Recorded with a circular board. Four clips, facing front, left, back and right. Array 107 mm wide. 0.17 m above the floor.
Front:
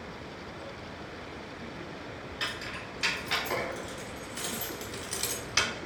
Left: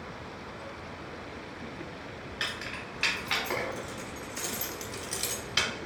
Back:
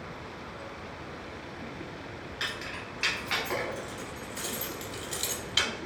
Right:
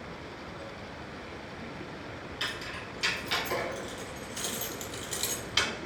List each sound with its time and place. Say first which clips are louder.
2.4 s keys jangling: left 2 dB, back 1 dB; 120° left, 1.7 m; by 5.7 s 5° right, 1.0 m